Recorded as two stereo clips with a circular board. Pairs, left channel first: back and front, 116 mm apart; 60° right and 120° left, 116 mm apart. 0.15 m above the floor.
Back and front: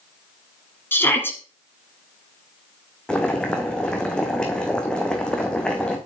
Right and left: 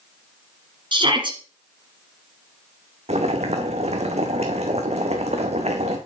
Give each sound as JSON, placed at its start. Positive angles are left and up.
{"t": 0.9, "sound": "a shout", "azimuth_deg": 115, "distance_m": 2.0}
{"t": 3.1, "sound": "boiling", "azimuth_deg": 95, "distance_m": 1.9}